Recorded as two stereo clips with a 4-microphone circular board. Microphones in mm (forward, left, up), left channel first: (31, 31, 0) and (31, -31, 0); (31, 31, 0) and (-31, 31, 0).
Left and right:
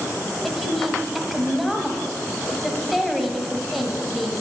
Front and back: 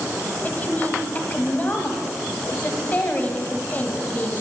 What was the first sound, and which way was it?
A woman speaking, straight ahead.